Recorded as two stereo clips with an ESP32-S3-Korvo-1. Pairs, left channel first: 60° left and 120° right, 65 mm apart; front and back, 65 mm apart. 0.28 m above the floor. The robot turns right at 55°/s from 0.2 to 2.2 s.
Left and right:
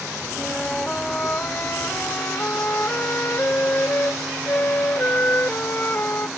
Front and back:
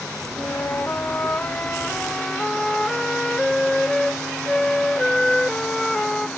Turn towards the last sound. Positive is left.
turn(degrees=75)